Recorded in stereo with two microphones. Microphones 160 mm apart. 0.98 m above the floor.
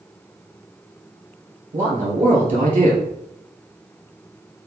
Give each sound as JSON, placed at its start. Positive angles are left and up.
{"t": 1.7, "sound": "a man speaking", "side_deg": -45, "distance_m": 2.5}